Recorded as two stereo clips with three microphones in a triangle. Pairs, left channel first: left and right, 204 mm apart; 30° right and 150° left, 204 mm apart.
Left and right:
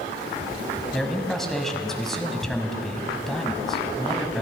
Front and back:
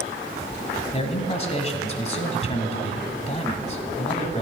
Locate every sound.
0.9 s a man speaking: straight ahead, 1.4 m